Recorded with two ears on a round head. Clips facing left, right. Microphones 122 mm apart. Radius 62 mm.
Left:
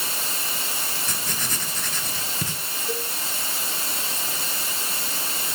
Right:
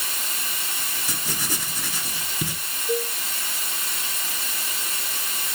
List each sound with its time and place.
0.0 s running water: 30° left (ahead or behind), 0.8 m
1.1 s writing: 10° right (ahead or behind), 0.6 m
2.9 s a cowbell: 20° left (ahead or behind), 0.9 m